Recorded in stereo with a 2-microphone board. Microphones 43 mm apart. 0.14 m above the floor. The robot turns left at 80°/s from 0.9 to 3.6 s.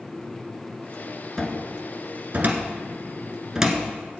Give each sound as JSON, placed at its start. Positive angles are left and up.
{"t": 1.4, "sound": "a cupboard door", "side_deg": 15, "distance_m": 1.3}